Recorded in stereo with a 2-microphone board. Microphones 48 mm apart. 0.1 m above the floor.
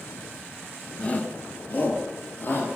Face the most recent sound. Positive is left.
turn(degrees=50)  # may be behind; listen again after turning